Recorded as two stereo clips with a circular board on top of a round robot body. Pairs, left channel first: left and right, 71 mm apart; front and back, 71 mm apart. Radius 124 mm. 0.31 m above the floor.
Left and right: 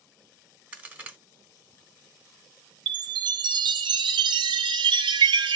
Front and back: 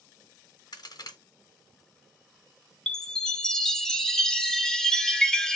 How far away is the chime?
About 0.5 m.